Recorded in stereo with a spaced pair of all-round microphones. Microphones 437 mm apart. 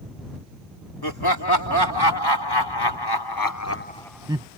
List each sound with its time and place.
1.0 s laughter: 55° left (ahead or behind); by 4.5 s 15° right (ahead or behind)